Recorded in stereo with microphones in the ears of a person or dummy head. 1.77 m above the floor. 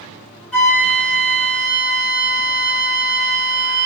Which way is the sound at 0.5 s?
5° left (ahead or behind).